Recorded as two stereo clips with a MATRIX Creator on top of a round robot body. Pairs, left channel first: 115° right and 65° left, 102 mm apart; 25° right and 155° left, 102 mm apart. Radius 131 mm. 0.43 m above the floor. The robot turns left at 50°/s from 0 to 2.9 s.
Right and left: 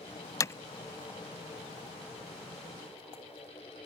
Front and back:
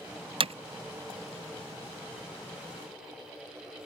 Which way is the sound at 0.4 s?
170° right.